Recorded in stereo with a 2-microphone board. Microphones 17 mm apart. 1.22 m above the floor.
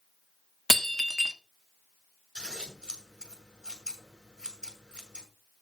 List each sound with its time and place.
0.7 s breaking glass: 10° left (ahead or behind), 1.2 m
2.4 s scissors: 50° right (ahead or behind), 6 m